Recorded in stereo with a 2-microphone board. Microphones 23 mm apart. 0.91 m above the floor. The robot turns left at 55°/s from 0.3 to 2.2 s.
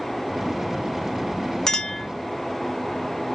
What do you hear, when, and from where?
1.7 s a clink: 25° left (ahead or behind), 0.8 m; by 2.1 s centre (ahead or behind), 0.8 m